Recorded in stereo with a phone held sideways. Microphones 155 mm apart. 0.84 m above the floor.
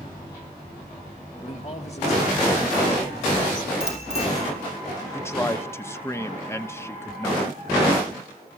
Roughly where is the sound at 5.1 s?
Centre.